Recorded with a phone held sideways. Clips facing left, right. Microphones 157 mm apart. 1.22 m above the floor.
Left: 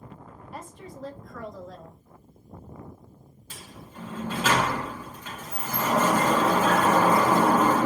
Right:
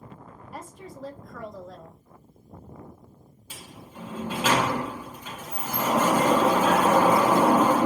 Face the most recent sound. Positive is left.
turn(degrees=-10)  # may be behind; listen again after turning